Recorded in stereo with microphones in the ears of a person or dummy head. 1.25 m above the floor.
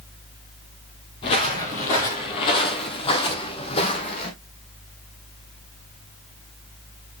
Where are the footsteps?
20° left (ahead or behind), 1.3 m; by 4.3 s 30° left (ahead or behind), 2 m.